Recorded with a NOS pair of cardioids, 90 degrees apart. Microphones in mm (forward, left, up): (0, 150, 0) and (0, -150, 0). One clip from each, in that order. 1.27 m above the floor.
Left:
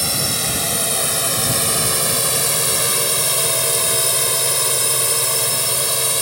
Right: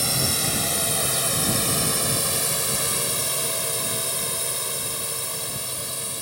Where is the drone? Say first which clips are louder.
Left 3 dB; 20° left; by 6.2 s 80° left.